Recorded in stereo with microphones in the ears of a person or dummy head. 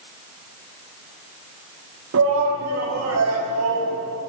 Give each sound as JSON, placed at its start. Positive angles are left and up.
{"t": 2.1, "sound": "a shout", "side_deg": -80, "distance_m": 3.0}